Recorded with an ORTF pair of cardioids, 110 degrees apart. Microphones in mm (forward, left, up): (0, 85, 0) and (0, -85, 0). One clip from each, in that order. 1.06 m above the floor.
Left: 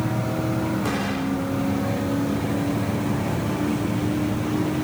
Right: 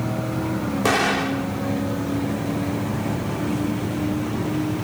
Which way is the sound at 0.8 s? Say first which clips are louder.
Right 6 dB; 60° right.